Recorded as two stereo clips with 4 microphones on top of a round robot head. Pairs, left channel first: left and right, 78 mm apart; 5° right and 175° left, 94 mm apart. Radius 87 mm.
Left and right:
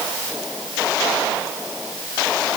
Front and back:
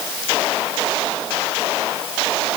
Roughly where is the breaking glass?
I don't hear breaking glass.